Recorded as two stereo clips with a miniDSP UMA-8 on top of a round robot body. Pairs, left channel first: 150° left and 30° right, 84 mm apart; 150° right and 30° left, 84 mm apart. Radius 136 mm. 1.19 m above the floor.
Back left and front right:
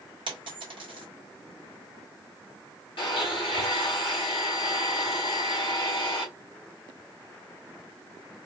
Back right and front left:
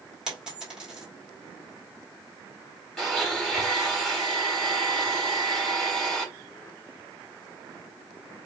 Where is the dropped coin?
50° right, 1.7 m.